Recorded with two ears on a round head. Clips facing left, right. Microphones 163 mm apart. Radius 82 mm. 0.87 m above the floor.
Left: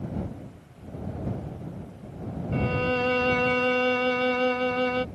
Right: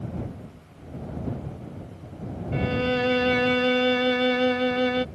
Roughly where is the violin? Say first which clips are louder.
Right 2 dB; centre.